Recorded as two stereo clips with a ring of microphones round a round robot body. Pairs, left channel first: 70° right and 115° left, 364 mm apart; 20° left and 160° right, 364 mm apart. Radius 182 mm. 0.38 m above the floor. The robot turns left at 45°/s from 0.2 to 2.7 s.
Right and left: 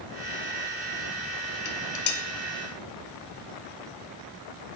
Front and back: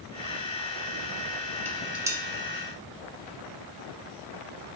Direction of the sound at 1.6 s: 60° right.